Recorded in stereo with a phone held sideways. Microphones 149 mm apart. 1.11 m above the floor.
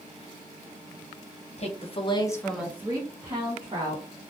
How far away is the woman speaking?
About 0.9 m.